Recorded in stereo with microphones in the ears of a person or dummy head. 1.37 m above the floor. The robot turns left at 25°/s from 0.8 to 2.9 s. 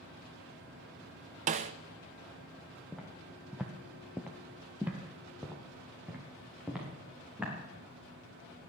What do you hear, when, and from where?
1.5 s a snare drum: 35° right (ahead or behind), 0.6 m; by 1.7 s 30° right (ahead or behind), 0.6 m
2.9 s footsteps: 5° left (ahead or behind), 2 m; by 7.5 s 10° right (ahead or behind), 5 m